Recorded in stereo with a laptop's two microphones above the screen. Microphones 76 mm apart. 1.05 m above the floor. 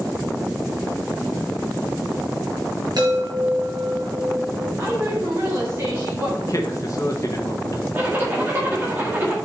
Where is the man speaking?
45° left (ahead or behind), 1.2 m.